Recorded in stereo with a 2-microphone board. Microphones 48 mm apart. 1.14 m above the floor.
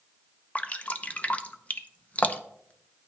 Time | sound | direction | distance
0.6 | dripping | 30° left (ahead or behind) | 0.6 m